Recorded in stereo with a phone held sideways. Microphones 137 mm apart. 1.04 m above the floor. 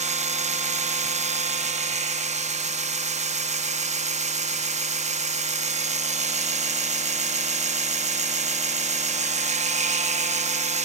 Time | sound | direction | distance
0.0 | a machine running | 60° right (ahead or behind) | 0.7 m